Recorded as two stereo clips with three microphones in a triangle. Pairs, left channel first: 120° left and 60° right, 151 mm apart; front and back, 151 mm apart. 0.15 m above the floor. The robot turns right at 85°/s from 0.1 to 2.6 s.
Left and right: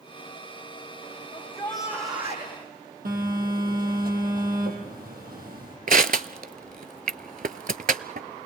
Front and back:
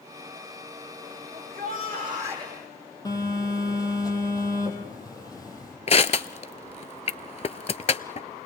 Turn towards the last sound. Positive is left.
turn(degrees=-45)